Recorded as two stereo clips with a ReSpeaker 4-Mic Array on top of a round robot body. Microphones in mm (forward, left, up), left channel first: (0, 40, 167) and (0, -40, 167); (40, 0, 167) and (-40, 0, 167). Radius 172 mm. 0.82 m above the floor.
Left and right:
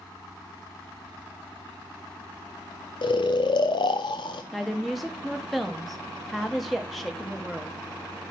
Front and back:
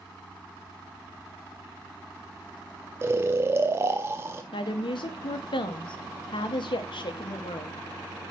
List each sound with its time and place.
3.0 s snoring: 115° left, 0.5 m
4.5 s a woman speaking: straight ahead, 1.4 m